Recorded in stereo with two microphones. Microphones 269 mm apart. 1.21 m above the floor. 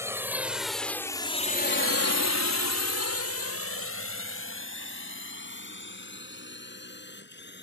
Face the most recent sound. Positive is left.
turn(degrees=40)  # may be behind; listen again after turning